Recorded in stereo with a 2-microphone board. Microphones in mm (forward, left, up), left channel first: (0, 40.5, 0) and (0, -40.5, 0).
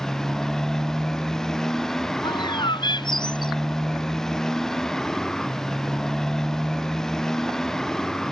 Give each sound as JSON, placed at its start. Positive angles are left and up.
{"t": 0.0, "sound": "a motorcycle", "side_deg": 5}
{"t": 2.2, "sound": "a bird", "side_deg": 70}